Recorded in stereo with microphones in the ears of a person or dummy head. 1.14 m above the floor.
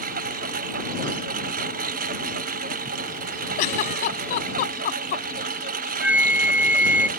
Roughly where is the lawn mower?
Right.